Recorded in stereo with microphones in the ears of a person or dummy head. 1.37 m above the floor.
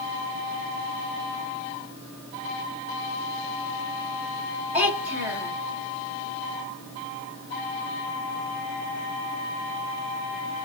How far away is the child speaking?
About 3 m.